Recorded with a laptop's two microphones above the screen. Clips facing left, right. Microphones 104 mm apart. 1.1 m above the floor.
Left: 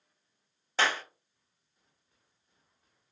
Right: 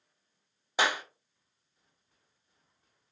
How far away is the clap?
About 0.6 m.